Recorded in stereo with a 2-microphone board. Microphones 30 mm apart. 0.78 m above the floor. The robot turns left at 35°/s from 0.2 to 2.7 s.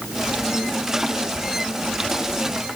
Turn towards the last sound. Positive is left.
No sound to turn to.